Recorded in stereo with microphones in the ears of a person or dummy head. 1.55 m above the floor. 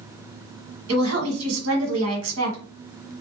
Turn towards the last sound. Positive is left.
turn(degrees=-85)